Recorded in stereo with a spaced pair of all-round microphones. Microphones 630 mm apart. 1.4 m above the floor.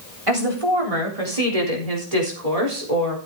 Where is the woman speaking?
55° right (ahead or behind), 3.5 m; by 3.2 s 80° right, 4 m.